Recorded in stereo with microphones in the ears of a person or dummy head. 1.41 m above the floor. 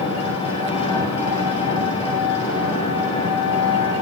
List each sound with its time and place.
0.0 s an engine running: 30° left (ahead or behind), 9.5 m